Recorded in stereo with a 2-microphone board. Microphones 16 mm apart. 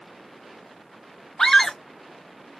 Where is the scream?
45° left (ahead or behind), 0.8 m.